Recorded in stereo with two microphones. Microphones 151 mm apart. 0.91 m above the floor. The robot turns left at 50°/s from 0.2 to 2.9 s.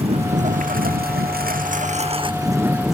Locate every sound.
0.0 s a lawn mower: 40° right; by 3.0 s 175° right